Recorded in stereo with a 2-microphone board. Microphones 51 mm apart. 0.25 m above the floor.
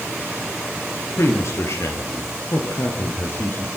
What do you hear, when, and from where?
1.2 s a man speaking: 65° left (ahead or behind), 6 m; by 3.7 s 50° left (ahead or behind), 7.5 m